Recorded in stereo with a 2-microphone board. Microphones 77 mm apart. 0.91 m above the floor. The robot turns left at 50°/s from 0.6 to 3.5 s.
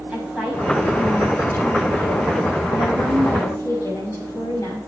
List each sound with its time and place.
0.1 s a woman speaking: 170° right, 6 m; by 4.9 s 45° left, 6 m